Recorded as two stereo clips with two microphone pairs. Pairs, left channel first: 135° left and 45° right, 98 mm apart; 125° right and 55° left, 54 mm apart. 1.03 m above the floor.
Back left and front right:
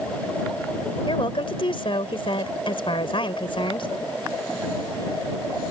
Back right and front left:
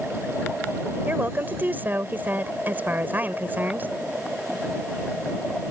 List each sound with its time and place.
1.1 s a woman speaking: 105° left